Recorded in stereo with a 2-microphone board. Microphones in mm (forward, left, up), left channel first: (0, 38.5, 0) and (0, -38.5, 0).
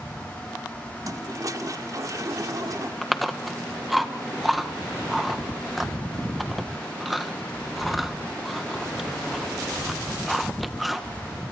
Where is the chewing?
Centre (ahead or behind), 1.6 m.